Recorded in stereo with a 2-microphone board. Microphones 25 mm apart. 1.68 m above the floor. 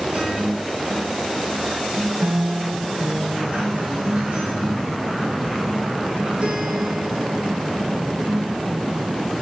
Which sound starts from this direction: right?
A guitar, at 0.1 s.